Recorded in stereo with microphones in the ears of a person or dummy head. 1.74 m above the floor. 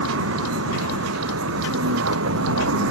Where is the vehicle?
85° right.